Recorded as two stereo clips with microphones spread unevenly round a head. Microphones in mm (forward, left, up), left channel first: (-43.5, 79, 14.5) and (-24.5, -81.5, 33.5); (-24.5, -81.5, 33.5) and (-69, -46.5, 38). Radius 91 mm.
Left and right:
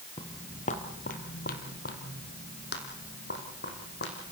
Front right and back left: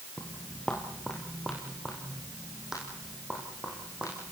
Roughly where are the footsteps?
Ahead left.